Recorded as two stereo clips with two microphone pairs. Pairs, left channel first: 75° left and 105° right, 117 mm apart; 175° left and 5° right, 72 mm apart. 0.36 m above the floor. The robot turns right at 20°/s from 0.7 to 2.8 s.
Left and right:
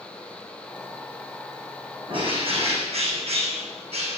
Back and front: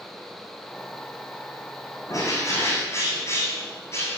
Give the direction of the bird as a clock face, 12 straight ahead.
5 o'clock.